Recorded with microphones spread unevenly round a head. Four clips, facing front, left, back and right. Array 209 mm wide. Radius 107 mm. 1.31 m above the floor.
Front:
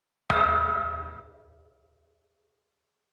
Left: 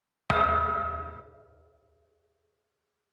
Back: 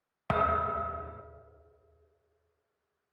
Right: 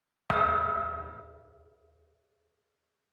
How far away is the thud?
About 0.6 m.